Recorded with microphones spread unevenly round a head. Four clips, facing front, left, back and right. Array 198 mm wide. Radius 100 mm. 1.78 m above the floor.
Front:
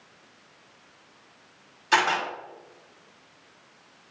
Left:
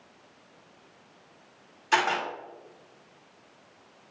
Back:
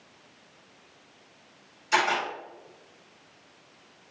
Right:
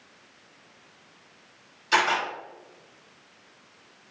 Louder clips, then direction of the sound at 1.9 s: Right 1 dB, front 2 dB; 5° left.